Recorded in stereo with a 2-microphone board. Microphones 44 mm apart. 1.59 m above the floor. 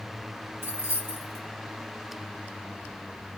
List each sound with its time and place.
0.6 s keys jangling: 60° right (ahead or behind), 3 m